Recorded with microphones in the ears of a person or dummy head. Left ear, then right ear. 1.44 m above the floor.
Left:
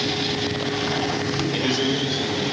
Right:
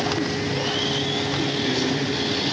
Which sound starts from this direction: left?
A man speaking, at 1.5 s.